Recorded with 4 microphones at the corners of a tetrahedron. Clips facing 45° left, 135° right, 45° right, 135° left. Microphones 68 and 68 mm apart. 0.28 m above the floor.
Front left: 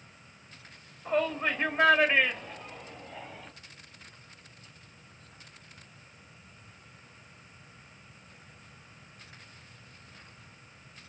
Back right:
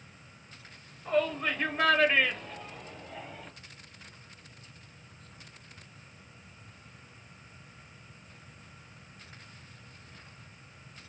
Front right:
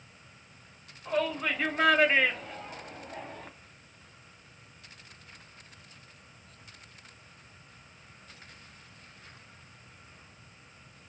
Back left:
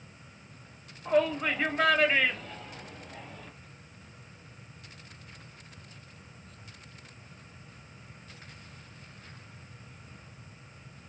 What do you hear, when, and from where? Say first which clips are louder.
1.1 s a shout: even, back left 4 dB; 90° left, 1.2 m; by 3.5 s 45° right, 1.5 m